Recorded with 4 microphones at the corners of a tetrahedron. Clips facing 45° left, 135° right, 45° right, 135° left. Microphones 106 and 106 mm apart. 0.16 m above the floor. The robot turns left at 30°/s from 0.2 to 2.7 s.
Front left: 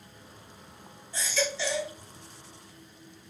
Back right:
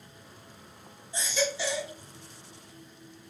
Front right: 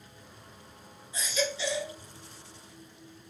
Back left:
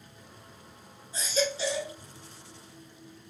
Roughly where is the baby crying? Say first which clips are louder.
Back right 1 dB, back left 3 dB; behind.